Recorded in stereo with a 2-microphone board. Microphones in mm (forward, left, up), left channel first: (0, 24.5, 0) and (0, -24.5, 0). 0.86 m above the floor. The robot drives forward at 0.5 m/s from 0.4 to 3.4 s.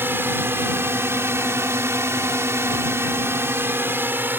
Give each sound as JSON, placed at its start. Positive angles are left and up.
{"t": 0.0, "sound": "a drone", "side_deg": -50}